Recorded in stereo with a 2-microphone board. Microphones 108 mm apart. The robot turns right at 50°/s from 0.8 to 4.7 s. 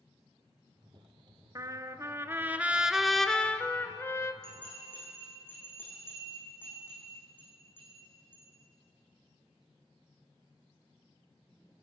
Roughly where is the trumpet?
Right.